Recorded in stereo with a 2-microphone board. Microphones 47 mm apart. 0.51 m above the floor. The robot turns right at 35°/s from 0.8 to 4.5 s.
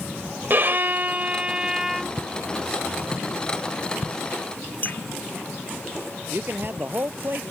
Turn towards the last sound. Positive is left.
turn(degrees=-50)  # may be behind; listen again after turning